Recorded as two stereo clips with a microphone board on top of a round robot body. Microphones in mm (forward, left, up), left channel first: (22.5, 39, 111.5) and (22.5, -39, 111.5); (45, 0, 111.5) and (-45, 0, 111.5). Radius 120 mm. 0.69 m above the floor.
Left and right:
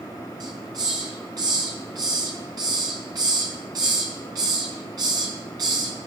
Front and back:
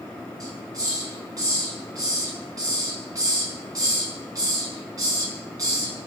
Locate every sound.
0.4 s a hiss: 130° right, 4 m